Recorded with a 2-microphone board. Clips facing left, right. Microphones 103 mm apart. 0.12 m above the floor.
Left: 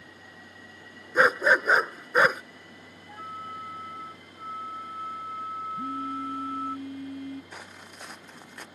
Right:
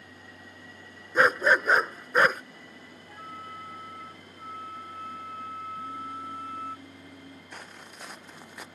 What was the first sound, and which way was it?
A dog barking, 5° left (ahead or behind).